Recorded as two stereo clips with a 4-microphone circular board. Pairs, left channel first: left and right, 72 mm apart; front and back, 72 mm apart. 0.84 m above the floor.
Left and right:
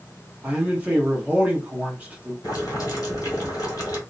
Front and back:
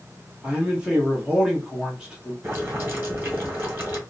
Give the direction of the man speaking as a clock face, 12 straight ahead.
4 o'clock.